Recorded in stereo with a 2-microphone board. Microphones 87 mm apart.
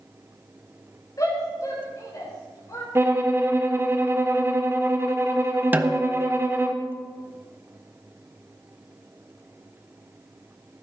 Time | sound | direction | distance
1.2 | a shout | 45° left (ahead or behind) | 6 m
3.0 | a violin | 30° right (ahead or behind) | 1.2 m
5.7 | a snare drum | 25° right (ahead or behind) | 0.9 m